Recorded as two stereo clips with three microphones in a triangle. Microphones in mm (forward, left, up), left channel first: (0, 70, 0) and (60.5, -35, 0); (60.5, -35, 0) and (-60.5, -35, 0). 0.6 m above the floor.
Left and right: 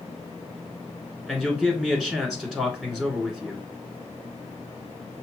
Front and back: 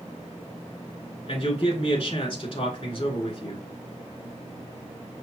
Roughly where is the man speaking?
Ahead left.